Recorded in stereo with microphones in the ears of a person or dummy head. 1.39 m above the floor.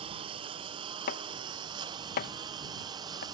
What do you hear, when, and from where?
0.0 s a lawn mower: 25° right (ahead or behind); by 3.3 s 20° right (ahead or behind)
1.1 s chopping: 45° left (ahead or behind)